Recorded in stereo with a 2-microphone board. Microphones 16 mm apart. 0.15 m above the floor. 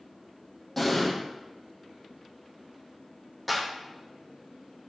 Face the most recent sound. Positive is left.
turn(degrees=5)  # may be behind; listen again after turning